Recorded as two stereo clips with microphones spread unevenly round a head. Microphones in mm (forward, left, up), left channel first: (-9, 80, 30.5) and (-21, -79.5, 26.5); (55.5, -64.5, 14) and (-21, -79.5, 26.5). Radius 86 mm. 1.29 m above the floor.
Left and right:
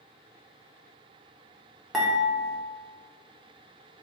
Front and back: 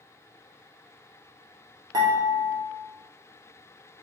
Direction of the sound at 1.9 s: Straight behind.